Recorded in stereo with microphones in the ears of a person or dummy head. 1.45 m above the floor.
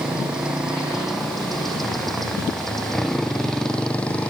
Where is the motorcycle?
5° right (ahead or behind); by 4.3 s 5° left (ahead or behind).